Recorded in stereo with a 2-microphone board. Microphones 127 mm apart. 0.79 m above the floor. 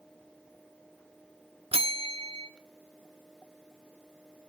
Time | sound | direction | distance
1.7 | a bell | 45° right (ahead or behind) | 1.4 m